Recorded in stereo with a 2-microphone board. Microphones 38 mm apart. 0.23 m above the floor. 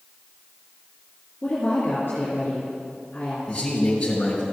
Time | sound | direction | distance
1.4 | a woman speaking | 50° left (ahead or behind) | 3 m
3.5 | a man speaking | 25° left (ahead or behind) | 2 m